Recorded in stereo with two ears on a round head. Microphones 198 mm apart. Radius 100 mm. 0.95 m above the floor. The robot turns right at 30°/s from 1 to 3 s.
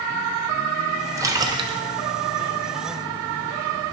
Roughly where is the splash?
Centre.